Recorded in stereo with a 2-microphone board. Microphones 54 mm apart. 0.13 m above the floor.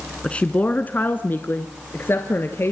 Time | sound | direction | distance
0.2 | a woman speaking | 20° left (ahead or behind) | 1.1 m